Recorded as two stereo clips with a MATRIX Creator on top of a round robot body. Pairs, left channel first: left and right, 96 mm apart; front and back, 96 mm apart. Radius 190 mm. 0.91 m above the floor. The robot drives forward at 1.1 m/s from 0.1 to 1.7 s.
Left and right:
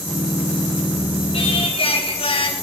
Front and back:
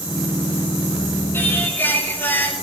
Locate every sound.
1.3 s singing: 65° left, 7.5 m; by 2.5 s 70° left, 7.5 m